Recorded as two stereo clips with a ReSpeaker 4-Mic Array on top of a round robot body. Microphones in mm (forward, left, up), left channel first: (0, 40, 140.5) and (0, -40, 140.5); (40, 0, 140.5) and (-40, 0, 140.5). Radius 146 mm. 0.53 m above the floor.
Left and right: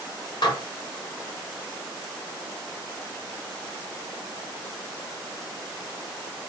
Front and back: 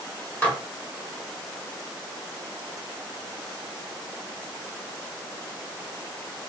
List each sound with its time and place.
0.4 s dishes clattering: 75° left, 1.3 m